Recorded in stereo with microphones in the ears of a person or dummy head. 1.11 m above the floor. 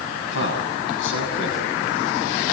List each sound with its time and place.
0.3 s a man speaking: 75° left (ahead or behind), 6 m